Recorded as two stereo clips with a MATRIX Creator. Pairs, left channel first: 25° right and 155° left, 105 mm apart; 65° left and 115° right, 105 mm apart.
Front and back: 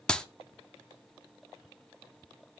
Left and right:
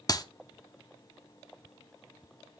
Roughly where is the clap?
Ahead left.